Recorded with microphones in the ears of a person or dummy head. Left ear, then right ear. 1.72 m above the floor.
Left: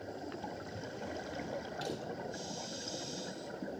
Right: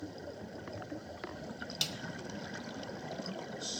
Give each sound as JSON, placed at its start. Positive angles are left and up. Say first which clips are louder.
{"t": 1.8, "sound": "a snare drum", "louder": "right 7 dB", "side_deg": -70, "distance_m": 1.4}